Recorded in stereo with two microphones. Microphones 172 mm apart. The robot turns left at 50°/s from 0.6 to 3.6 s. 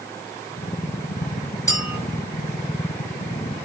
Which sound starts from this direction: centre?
A clink, at 1.7 s.